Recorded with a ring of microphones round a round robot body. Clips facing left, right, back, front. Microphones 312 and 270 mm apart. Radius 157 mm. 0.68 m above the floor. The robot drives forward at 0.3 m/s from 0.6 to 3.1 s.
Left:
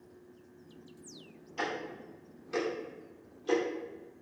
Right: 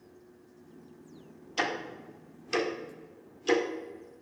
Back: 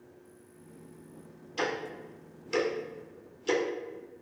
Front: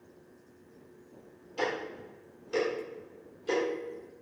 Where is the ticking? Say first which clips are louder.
Right 2 dB, even; 110° right, 1.6 m; by 3.6 s 125° right, 1.8 m.